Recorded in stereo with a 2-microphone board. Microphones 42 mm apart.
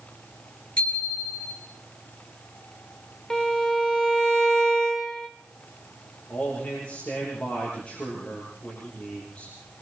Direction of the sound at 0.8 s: 30° left (ahead or behind).